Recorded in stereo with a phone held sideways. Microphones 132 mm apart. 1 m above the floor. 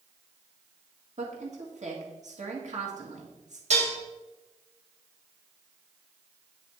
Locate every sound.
1.2 s a woman speaking: 70° right (ahead or behind), 1.7 m
3.7 s dishes clattering: 60° right (ahead or behind), 1.1 m